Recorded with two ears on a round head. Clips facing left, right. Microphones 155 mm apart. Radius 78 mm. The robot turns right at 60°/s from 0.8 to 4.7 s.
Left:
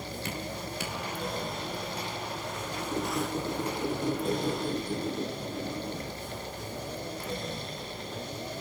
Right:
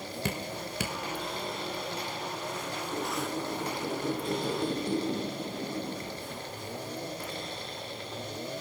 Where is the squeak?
95° left, 5.5 m; by 6.4 s 160° right, 5.5 m.